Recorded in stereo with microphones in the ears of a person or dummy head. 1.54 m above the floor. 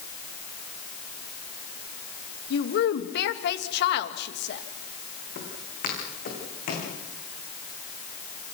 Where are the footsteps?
50° left (ahead or behind), 7.5 m; by 6.9 s 55° left (ahead or behind), 7.5 m.